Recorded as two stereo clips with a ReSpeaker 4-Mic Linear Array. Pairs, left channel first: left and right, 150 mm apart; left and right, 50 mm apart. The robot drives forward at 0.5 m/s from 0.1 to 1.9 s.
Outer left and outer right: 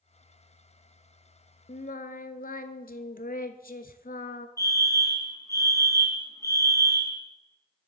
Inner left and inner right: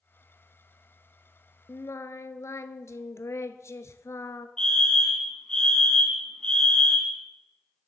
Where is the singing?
65° left (ahead or behind), 0.5 m; by 4.5 s 75° left (ahead or behind), 0.5 m.